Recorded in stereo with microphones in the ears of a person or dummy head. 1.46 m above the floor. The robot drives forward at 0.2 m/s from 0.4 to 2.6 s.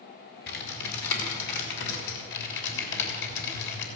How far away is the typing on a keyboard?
About 3.5 m.